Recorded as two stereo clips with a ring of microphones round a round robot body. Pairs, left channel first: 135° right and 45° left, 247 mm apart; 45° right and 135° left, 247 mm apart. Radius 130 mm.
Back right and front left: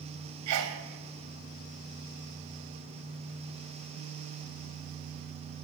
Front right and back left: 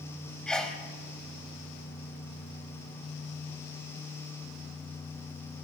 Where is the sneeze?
40° left, 2.5 m.